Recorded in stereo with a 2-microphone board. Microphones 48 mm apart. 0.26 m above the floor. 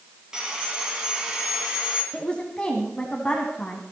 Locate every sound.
0.3 s sawing: 15° right (ahead or behind), 3 m
2.1 s a woman speaking: 20° left (ahead or behind), 1.8 m